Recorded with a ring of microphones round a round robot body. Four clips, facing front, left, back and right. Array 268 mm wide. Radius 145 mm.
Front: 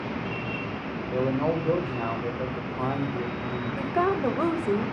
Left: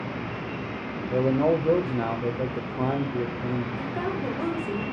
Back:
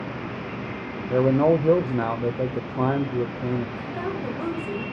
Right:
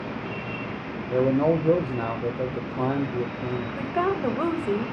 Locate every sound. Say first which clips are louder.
1.1 s a man speaking: right 1 dB, back 7 dB; 170° right, 1.2 m
3.8 s a woman speaking: right 4 dB, front 5 dB; 45° right, 2.0 m